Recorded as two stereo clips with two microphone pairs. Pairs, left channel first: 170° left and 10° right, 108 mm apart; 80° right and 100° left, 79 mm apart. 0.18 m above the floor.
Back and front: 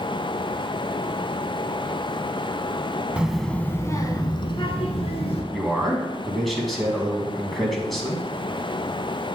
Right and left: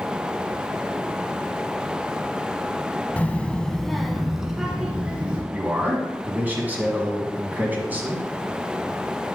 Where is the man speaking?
85° left, 1.6 m.